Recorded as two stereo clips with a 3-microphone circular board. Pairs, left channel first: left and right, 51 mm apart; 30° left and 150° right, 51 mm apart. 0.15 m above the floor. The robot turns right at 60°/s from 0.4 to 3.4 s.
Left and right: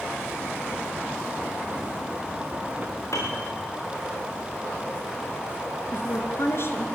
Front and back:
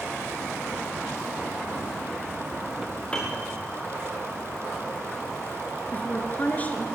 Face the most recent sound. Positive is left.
turn(degrees=80)